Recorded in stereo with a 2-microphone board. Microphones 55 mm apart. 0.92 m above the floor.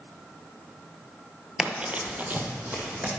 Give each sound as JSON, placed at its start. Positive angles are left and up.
{"t": 1.6, "sound": "running footsteps", "side_deg": -10, "distance_m": 0.9}